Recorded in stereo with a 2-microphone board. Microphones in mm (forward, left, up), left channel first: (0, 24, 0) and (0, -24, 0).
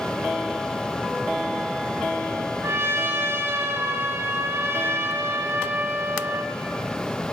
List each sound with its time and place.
2.6 s a trumpet: 65° right (ahead or behind), 3 m